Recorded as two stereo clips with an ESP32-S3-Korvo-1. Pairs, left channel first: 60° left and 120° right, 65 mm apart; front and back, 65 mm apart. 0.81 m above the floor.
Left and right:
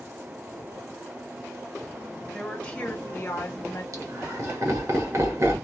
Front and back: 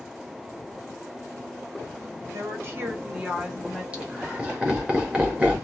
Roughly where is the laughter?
Right.